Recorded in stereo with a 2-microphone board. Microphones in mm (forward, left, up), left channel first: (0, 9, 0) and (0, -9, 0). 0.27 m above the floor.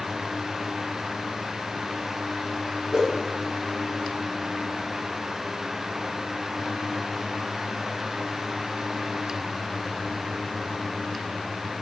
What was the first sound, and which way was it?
A whoosh, 15° right (ahead or behind).